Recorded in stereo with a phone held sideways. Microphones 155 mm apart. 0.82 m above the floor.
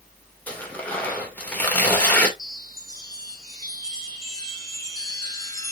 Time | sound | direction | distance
0.5 | tearing paper | 10° left (ahead or behind) | 2.5 m
2.4 | a chime | 25° left (ahead or behind) | 2 m